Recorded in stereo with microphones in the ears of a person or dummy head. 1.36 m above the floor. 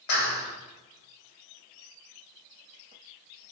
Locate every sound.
0.1 s a clap: 65° left (ahead or behind), 1.7 m